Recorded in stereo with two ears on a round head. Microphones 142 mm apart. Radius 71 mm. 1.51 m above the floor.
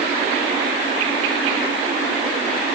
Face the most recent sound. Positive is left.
No sound to turn to.